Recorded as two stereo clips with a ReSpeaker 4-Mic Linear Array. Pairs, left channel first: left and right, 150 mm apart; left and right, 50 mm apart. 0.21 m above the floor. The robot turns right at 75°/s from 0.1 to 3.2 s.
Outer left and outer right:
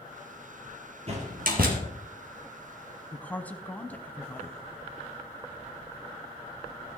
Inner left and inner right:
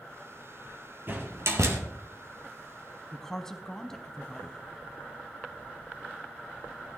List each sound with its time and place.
1.1 s a door slam: 45° right (ahead or behind), 3.5 m; by 1.8 s 75° right (ahead or behind), 3.5 m
3.1 s a woman speaking: 15° left (ahead or behind), 1.5 m; by 4.6 s 10° left (ahead or behind), 1.5 m